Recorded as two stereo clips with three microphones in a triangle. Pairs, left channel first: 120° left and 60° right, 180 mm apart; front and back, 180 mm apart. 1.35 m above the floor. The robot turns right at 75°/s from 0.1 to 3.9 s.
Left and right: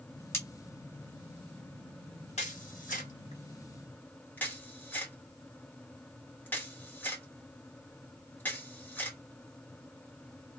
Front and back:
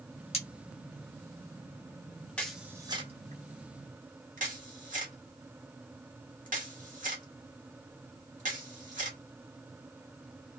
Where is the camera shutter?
80° left, 0.8 m; by 9.2 s 165° right, 0.8 m.